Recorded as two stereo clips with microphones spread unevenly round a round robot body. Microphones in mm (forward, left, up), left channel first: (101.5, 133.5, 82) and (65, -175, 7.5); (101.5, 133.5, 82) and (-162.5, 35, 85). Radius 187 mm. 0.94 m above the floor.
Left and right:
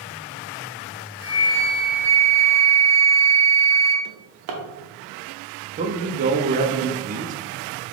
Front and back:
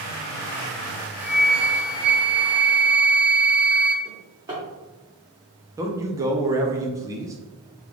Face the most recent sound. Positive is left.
turn(degrees=-85)